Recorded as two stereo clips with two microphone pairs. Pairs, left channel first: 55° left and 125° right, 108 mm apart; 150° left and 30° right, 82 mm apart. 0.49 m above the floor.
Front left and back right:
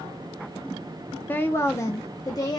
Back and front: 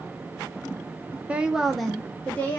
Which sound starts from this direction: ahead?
A woman speaking, at 1.3 s.